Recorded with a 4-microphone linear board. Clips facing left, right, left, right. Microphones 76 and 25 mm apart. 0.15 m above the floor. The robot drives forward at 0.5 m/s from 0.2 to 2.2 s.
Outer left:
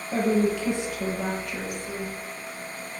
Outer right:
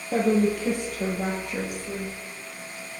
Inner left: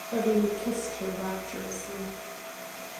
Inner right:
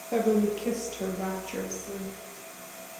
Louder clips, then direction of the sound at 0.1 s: Outer right 1 dB, inner right 1 dB; 55° right (ahead or behind).